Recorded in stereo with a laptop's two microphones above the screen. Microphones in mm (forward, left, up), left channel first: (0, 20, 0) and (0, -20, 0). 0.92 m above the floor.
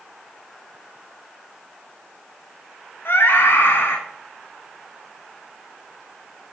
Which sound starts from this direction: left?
A scream, at 3.0 s.